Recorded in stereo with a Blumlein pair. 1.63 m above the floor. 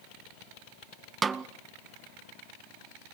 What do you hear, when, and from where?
1.2 s a snare drum: 15° right, 0.6 m